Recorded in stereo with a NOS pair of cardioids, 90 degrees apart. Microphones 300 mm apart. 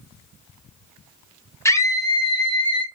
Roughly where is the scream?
Ahead.